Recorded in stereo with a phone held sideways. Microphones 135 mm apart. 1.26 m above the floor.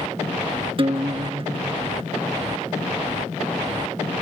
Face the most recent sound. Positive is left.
turn(degrees=-40)  # may be behind; listen again after turning